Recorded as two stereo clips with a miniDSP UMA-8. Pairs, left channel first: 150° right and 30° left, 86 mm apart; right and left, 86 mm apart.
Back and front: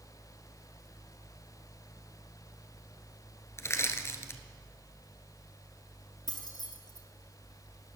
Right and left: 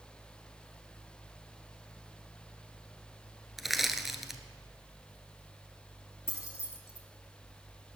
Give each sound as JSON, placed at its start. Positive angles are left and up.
{"t": 3.6, "sound": "crushing", "azimuth_deg": 175, "distance_m": 0.9}
{"t": 6.3, "sound": "keys jangling", "azimuth_deg": -140, "distance_m": 1.8}